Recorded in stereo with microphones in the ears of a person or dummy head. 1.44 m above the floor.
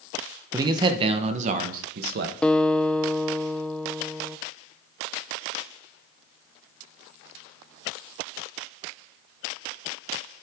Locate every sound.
0.5 s a man speaking: 20° right (ahead or behind), 1.0 m; by 2.3 s 60° right (ahead or behind), 1.4 m
2.4 s a guitar: 5° left (ahead or behind), 0.5 m